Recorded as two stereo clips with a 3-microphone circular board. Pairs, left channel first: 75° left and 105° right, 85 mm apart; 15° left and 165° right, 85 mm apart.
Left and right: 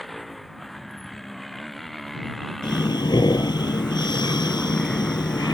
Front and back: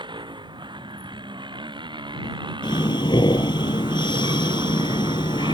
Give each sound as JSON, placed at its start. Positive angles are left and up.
{"t": 0.0, "sound": "a motorcycle", "azimuth_deg": 165}
{"t": 2.6, "sound": "breathing", "azimuth_deg": 45}